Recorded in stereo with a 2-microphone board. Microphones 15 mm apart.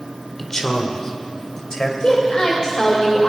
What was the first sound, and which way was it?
A man speaking, 30° left (ahead or behind).